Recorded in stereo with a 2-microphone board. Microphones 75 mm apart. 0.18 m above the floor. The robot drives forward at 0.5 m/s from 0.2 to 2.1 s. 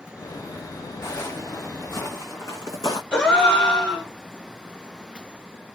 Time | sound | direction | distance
1.0 | footsteps | 40° left (ahead or behind) | 1.3 m
3.1 | a gasp | 10° left (ahead or behind) | 0.8 m